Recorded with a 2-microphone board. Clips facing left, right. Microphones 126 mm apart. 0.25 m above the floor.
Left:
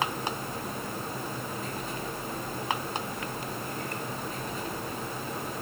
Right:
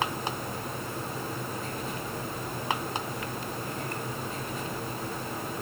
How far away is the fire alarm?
No fire alarm in this recording.